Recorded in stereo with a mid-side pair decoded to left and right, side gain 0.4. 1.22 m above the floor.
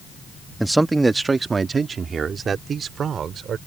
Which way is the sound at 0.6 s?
10° right.